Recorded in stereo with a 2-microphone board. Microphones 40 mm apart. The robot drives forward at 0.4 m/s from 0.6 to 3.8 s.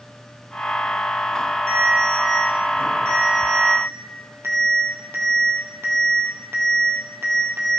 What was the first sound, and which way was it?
A ringtone, 60° right (ahead or behind).